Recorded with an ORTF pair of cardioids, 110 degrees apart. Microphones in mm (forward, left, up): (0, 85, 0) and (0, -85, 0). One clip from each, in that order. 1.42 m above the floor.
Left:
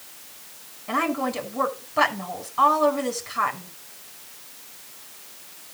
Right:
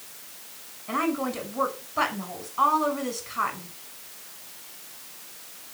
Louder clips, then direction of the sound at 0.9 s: Left 3 dB; 25° left.